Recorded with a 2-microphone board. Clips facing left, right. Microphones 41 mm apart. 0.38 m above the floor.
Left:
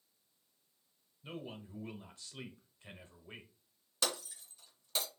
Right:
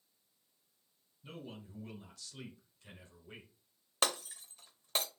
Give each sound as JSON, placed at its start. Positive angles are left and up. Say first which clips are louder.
{"t": 1.2, "sound": "a man speaking", "louder": "left 3 dB", "side_deg": 30, "distance_m": 1.0}
{"t": 4.0, "sound": "breaking glass", "louder": "right 3 dB", "side_deg": -55, "distance_m": 0.7}